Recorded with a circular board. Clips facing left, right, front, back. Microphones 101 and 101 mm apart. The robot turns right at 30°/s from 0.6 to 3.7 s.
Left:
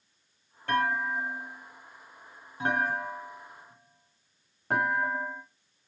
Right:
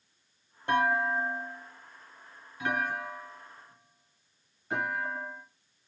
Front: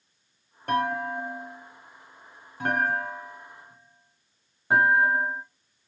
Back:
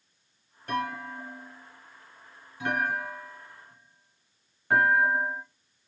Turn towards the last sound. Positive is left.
turn(degrees=70)